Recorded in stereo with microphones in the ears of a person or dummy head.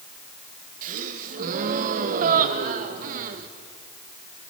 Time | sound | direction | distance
0.8 | a gasp | 45° right (ahead or behind) | 1.0 m